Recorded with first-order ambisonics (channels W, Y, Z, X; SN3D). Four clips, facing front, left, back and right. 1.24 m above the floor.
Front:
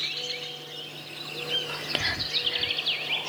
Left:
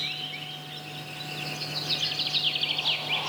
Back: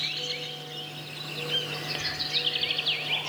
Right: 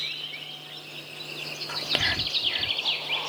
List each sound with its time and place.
1.7 s whispering: 60° right